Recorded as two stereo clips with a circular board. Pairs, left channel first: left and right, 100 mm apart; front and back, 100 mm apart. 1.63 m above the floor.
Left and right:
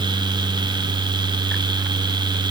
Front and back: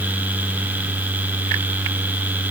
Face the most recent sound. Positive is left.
No sound to turn to.